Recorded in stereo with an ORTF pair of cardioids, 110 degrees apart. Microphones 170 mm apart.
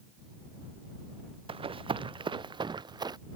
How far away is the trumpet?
No trumpet in this recording.